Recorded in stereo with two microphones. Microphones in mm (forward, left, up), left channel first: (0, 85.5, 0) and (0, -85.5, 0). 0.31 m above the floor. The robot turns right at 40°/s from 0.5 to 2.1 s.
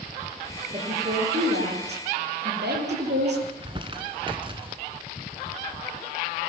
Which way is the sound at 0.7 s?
145° right.